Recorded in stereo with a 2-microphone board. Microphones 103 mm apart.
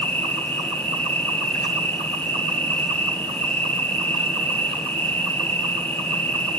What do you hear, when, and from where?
0.0 s an insect: 20° left (ahead or behind), 2.5 m